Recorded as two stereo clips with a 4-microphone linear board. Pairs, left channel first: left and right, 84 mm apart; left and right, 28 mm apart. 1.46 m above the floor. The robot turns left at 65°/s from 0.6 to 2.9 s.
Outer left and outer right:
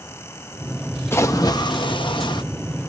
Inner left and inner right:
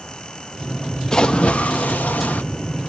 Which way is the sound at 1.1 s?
150° left.